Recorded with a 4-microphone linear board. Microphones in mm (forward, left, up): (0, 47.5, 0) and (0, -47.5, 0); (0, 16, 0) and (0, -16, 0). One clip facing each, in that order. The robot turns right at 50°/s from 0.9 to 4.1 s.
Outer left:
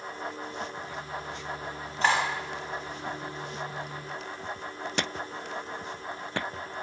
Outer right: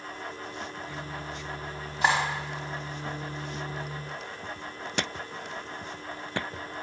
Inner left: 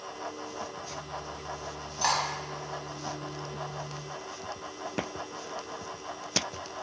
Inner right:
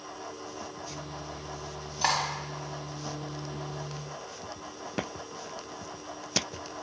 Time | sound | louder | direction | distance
2.0 | cutlery clinking | even, even | 10° right (ahead or behind) | 0.6 m